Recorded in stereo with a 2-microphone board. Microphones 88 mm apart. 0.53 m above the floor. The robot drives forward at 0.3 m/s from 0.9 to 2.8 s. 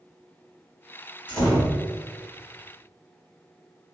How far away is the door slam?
About 1.5 m.